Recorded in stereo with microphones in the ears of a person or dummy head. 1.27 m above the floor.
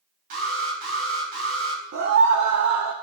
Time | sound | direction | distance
0.3 | an alarm | 45° right (ahead or behind) | 3.5 m
1.9 | a scream | 60° right (ahead or behind) | 1.1 m